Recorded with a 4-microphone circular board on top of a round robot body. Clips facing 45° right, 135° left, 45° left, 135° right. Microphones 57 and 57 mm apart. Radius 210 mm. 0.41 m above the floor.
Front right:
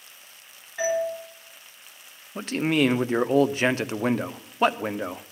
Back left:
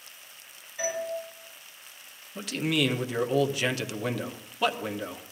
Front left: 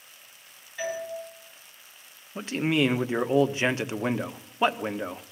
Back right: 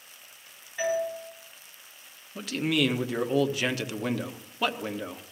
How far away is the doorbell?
About 9.5 m.